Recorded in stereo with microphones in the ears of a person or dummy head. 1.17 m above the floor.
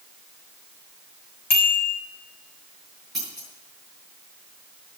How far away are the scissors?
About 8.5 m.